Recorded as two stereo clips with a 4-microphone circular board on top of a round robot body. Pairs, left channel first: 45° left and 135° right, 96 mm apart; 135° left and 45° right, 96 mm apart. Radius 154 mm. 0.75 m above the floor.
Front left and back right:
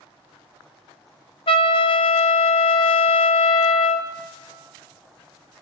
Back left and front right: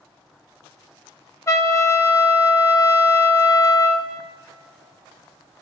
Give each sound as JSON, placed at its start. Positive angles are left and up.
{"t": 1.5, "sound": "a trumpet", "azimuth_deg": 75, "distance_m": 1.0}